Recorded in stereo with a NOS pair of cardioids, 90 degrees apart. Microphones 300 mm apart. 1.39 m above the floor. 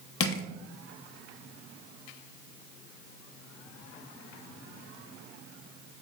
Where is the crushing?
50° left, 0.7 m.